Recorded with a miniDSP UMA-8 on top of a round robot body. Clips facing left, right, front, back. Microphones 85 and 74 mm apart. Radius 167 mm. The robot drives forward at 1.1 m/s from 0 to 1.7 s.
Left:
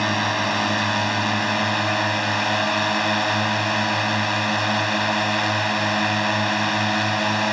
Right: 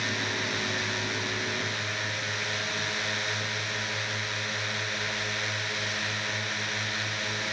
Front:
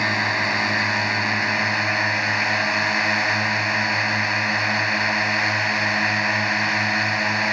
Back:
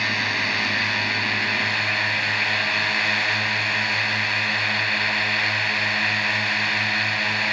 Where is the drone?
65° left; by 7.5 s 70° left.